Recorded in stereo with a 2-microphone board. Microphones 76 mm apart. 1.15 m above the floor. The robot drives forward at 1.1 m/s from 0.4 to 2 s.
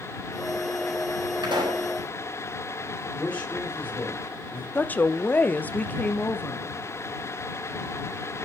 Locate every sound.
1.4 s a pop: 85° right, 4.5 m
3.1 s a man speaking: 20° left (ahead or behind), 4.5 m
4.8 s a woman speaking: 25° left (ahead or behind), 0.6 m